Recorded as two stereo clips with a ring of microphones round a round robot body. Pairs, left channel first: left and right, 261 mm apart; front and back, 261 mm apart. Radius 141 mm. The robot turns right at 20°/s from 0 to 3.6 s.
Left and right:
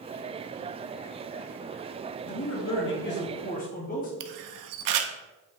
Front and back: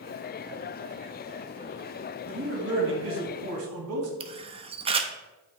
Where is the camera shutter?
110° right, 0.6 m.